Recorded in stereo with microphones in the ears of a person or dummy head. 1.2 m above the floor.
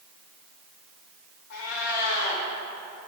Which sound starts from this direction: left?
A cat meowing, at 1.5 s.